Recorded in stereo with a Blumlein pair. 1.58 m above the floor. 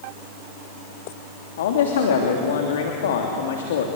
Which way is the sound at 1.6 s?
60° left.